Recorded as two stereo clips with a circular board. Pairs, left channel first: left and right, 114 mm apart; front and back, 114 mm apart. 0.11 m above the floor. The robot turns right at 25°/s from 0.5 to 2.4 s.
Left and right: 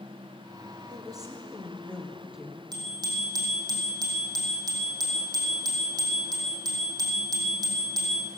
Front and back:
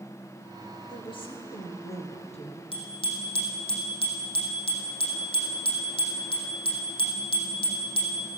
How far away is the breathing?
I don't hear breathing.